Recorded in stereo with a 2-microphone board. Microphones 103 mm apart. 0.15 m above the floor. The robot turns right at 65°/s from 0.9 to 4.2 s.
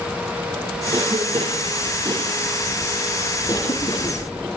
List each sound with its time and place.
0.9 s a cough: 50° right (ahead or behind), 6 m; by 4.2 s 75° left (ahead or behind), 6 m